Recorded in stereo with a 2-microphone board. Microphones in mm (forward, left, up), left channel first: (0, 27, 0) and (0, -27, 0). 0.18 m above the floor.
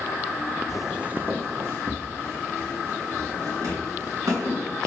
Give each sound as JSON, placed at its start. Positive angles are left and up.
{"t": 0.7, "sound": "footsteps", "side_deg": 5, "distance_m": 0.6}